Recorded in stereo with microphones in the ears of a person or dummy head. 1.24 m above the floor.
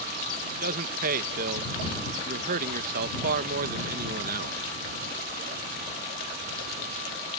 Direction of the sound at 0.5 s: 50° right (ahead or behind).